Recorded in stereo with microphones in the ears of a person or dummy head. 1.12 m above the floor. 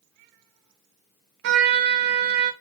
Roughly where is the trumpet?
Right.